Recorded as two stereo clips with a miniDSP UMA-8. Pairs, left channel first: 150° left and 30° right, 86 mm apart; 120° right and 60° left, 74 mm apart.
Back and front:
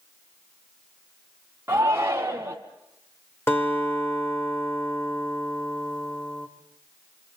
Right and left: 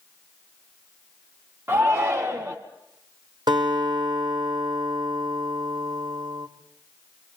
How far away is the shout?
About 1.5 m.